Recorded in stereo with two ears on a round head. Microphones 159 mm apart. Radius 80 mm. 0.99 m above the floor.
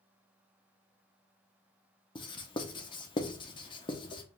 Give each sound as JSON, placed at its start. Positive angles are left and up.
{"t": 2.1, "sound": "writing", "side_deg": 30, "distance_m": 0.6}